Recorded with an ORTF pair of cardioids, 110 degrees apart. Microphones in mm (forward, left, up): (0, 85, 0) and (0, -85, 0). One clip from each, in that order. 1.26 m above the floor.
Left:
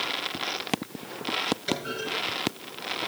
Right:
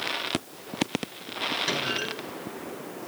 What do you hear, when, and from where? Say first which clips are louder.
1.7 s a clunk: right 3 dB; 65° right, 5.5 m